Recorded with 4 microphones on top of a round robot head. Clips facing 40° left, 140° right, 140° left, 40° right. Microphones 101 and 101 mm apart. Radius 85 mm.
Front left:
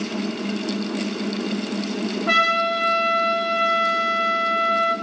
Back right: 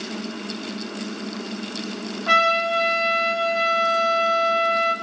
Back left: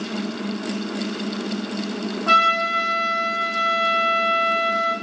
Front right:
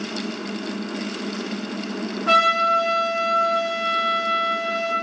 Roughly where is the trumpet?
Behind.